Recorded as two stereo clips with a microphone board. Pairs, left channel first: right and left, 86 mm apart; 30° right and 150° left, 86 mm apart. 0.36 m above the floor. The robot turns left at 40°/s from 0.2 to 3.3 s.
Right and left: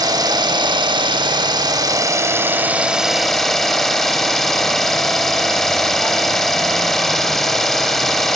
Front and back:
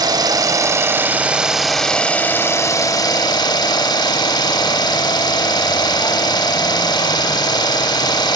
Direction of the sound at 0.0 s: 120° left.